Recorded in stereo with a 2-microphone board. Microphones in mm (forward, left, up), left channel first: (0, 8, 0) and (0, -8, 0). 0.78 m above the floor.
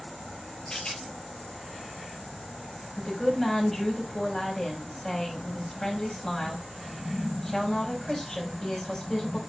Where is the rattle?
45° left (ahead or behind), 5 m.